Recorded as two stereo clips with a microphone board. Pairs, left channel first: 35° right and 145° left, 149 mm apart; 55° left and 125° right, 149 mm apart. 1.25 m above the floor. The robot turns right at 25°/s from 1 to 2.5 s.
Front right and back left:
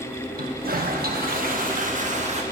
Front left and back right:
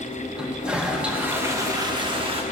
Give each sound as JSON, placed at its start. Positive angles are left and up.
{"t": 0.4, "sound": "a toilet flushing", "azimuth_deg": 150, "distance_m": 1.0}